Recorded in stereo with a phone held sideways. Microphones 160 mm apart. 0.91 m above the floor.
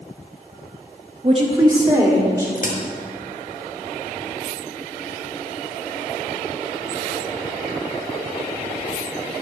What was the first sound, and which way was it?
A woman speaking, 40° right (ahead or behind).